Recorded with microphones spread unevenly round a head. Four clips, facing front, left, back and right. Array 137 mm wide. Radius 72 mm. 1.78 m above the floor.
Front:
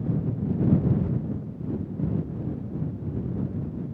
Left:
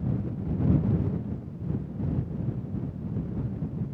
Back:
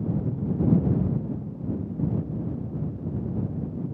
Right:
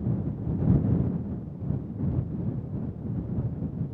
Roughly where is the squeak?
No squeak in this recording.